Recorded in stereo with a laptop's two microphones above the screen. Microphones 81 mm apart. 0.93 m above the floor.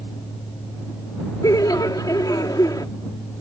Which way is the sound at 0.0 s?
70° left (ahead or behind).